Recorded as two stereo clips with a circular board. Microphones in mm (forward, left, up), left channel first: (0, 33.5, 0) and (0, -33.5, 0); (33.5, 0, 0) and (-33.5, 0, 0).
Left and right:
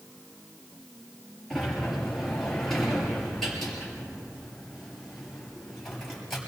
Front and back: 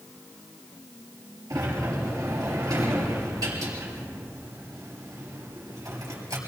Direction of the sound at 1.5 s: 175° left.